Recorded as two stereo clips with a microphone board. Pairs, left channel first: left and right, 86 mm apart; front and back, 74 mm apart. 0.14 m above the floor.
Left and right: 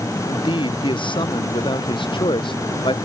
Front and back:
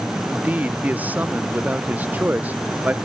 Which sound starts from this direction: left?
A man speaking, at 0.3 s.